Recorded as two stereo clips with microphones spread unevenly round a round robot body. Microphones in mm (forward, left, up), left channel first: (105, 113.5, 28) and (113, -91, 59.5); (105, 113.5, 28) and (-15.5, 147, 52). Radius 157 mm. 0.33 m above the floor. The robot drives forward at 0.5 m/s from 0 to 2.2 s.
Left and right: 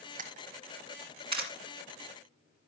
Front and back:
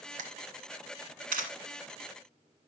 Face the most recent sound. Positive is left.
turn(degrees=-165)